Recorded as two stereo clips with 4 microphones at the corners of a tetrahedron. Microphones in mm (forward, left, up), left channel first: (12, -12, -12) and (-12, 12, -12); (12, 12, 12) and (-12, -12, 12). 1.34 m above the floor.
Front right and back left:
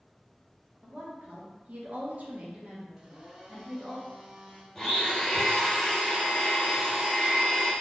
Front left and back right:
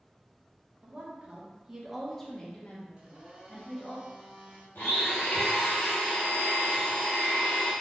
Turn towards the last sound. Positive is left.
turn(degrees=35)